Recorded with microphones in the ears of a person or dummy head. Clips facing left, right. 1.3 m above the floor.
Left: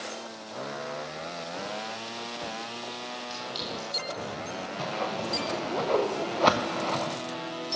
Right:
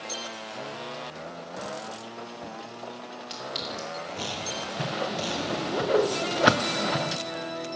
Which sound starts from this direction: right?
A clink, at 3.3 s.